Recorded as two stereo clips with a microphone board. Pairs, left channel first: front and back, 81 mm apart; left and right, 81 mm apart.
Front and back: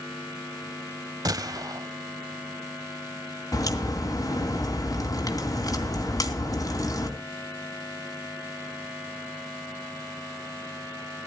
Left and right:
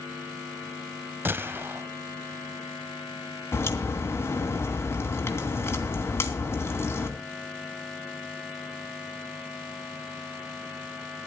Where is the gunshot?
150° right, 0.6 m.